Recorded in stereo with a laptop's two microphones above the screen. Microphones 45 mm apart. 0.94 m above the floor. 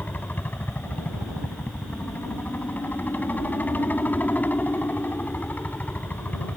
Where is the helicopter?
40° left (ahead or behind); by 6.6 s 35° left (ahead or behind).